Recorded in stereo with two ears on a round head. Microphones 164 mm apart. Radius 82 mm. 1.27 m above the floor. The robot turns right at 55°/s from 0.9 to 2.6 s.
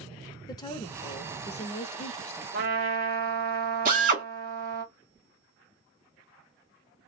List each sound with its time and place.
0.5 s a woman speaking: 35° left, 0.6 m; by 2.4 s 120° left, 0.6 m
2.5 s a trumpet: 45° right (ahead or behind), 0.9 m; by 4.8 s 50° right (ahead or behind), 0.9 m
3.9 s a drill: 45° right (ahead or behind), 1.4 m